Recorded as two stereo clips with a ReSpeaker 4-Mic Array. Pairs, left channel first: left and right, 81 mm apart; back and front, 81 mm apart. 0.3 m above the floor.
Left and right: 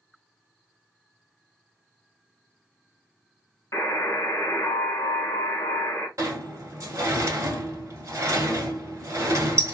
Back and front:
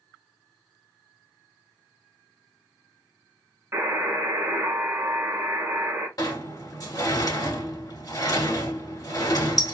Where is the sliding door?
140° right, 1.0 m.